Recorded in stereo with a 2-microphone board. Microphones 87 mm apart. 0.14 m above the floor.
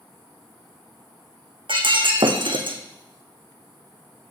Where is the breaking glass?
75° right (ahead or behind), 1.6 m.